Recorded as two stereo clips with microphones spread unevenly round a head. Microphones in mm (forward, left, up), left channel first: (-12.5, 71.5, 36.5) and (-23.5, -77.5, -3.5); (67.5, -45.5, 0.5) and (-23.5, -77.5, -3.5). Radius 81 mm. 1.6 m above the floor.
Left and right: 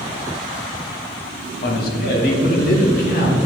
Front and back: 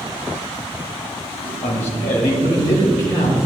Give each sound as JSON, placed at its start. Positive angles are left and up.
{"t": 1.6, "sound": "a man speaking", "azimuth_deg": 50, "distance_m": 1.1}